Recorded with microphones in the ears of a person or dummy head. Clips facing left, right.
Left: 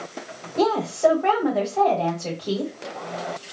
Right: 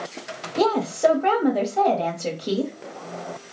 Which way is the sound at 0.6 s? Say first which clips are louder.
Even; 15° right (ahead or behind).